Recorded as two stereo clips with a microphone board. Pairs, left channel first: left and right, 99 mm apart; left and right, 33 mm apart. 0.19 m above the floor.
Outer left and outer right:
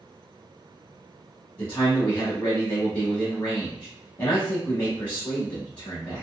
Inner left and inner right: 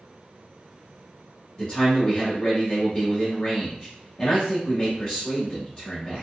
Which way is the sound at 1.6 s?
20° left (ahead or behind).